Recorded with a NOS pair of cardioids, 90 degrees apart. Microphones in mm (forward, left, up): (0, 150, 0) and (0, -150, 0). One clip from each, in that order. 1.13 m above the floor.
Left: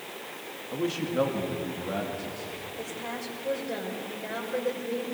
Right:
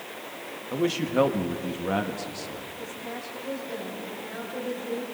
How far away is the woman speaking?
About 5.5 m.